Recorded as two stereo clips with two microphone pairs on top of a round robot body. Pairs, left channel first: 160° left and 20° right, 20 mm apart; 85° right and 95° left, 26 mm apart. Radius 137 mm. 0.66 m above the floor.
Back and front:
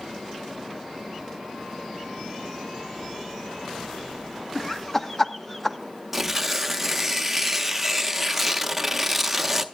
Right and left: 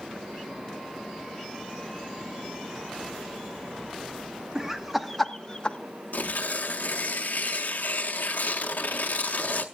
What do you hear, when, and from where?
4.5 s laughter: 100° left, 1.6 m; by 5.8 s 150° right, 1.2 m
6.1 s tearing paper: 100° right, 0.6 m